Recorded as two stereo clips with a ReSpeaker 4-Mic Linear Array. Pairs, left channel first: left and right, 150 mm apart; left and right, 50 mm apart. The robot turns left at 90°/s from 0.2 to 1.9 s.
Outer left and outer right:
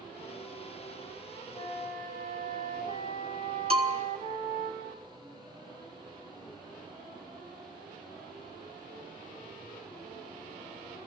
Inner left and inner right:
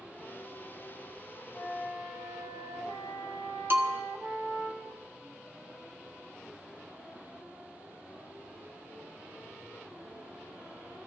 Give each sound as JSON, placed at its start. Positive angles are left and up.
{"t": 1.5, "sound": "a flute", "azimuth_deg": 150, "distance_m": 7.0}
{"t": 3.7, "sound": "a bell", "side_deg": -40, "distance_m": 1.7}